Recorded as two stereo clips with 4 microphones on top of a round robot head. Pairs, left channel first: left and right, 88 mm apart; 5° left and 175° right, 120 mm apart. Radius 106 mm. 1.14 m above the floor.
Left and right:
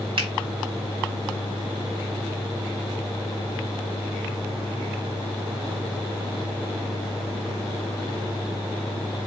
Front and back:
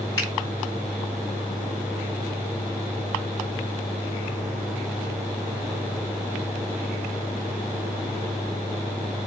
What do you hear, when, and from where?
0.2 s a finger snap: 65° right, 3.5 m